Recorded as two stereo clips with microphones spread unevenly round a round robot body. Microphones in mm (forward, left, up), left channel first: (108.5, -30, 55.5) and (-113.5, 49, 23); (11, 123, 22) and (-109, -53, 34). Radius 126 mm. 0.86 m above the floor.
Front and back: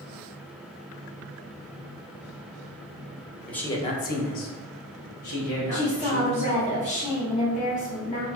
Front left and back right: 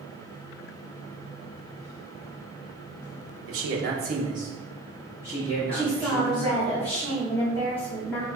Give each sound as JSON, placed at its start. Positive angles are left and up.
{"t": 3.5, "sound": "a man speaking", "azimuth_deg": -110, "distance_m": 0.8}
{"t": 5.7, "sound": "a woman speaking", "azimuth_deg": -5, "distance_m": 0.9}